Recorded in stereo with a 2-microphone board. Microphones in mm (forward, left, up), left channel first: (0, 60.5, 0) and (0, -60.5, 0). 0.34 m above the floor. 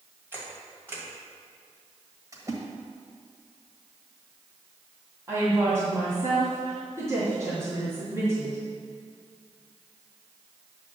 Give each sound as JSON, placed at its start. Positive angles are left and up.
{"t": 0.3, "sound": "a camera shutter", "side_deg": -20, "distance_m": 2.5}
{"t": 2.3, "sound": "a splash", "side_deg": -30, "distance_m": 1.6}
{"t": 5.3, "sound": "a woman speaking", "side_deg": -25, "distance_m": 2.5}